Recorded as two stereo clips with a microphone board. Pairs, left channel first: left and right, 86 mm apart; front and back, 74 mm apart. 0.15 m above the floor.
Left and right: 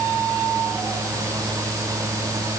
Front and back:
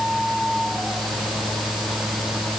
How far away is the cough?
I don't hear a cough.